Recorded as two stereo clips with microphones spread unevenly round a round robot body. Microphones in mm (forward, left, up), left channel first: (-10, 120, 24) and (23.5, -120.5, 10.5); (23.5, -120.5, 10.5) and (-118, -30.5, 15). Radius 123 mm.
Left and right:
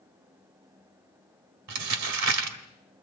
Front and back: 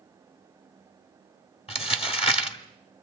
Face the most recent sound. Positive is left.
turn(degrees=-85)